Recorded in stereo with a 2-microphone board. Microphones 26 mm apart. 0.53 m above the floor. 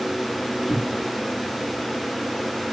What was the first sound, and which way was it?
A cupboard door, 20° left (ahead or behind).